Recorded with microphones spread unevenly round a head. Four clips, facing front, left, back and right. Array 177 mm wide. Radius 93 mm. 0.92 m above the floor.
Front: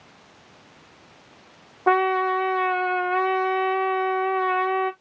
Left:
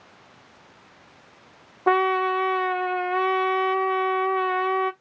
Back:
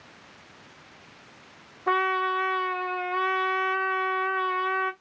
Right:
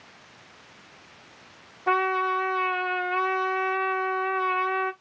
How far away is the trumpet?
About 0.9 m.